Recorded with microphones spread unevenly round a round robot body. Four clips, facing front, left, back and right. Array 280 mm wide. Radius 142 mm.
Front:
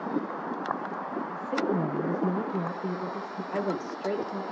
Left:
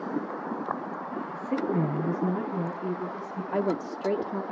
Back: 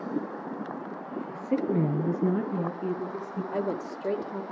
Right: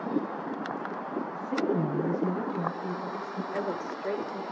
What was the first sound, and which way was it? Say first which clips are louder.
A woman speaking: left 1 dB, back 2 dB; 160° left.